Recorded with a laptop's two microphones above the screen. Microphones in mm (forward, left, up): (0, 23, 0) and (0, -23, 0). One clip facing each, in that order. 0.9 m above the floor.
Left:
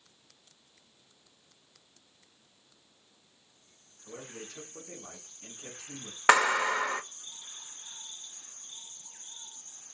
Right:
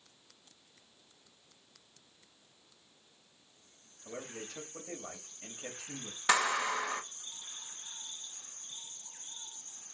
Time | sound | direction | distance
4.0 | a man speaking | 75° right (ahead or behind) | 1.3 m
6.3 | a clap | 45° left (ahead or behind) | 0.5 m